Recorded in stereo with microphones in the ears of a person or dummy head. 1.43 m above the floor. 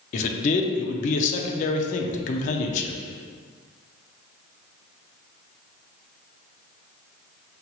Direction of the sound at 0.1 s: 40° left (ahead or behind).